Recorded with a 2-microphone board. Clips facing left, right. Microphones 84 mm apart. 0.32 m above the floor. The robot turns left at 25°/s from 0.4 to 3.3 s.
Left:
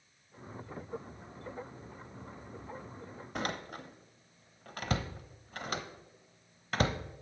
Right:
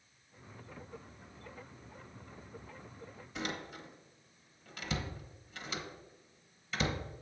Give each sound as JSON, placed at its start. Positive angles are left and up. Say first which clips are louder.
{"t": 3.4, "sound": "a door slam", "louder": "left 3 dB", "side_deg": 50, "distance_m": 0.9}